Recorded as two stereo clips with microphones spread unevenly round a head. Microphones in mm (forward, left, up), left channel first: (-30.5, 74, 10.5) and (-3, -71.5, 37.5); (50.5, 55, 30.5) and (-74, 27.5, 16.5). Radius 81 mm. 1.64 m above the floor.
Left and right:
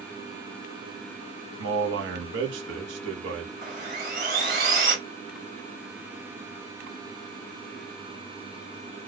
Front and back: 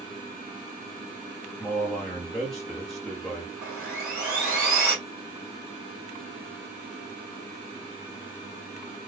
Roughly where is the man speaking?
Right.